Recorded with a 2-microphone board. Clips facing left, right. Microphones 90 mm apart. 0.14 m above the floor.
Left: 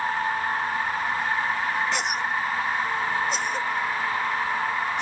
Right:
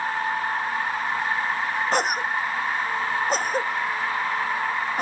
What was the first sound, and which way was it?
A cough, 45° right (ahead or behind).